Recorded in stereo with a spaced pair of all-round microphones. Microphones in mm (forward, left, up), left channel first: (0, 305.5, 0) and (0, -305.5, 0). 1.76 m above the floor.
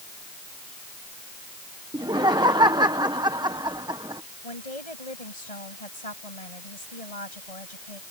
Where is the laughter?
5° right (ahead or behind).